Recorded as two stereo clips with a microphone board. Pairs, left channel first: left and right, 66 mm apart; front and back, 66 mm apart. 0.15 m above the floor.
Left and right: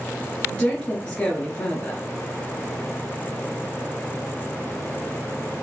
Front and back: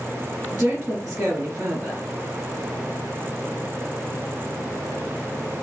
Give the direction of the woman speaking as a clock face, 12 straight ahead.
8 o'clock.